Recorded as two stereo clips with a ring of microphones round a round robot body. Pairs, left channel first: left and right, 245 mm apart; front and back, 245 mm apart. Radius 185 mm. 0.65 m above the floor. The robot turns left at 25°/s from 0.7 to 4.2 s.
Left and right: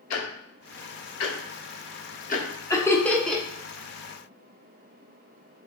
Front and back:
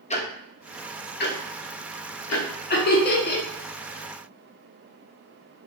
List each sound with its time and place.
0.1 s ticking: 70° left, 0.6 m; by 2.5 s 25° left, 0.6 m
2.7 s laughter: 20° left, 0.7 m; by 3.4 s straight ahead, 0.7 m